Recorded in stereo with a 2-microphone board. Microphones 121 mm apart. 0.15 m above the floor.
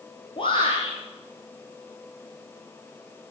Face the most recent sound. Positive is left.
turn(degrees=45)  # may be behind; listen again after turning